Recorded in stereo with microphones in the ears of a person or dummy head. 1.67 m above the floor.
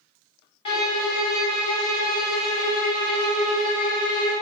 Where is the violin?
40° left (ahead or behind), 0.8 m.